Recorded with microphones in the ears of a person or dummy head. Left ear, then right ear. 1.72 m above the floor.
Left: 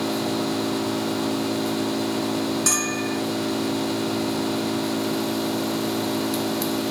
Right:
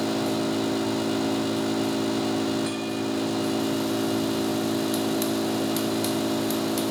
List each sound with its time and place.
0.0 s an engine running: centre (ahead or behind)
2.7 s a bell: 50° left (ahead or behind)